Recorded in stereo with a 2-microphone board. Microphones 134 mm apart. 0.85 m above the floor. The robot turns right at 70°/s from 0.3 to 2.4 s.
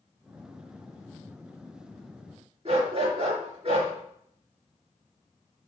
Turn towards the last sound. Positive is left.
turn(degrees=-45)  # may be behind; listen again after turning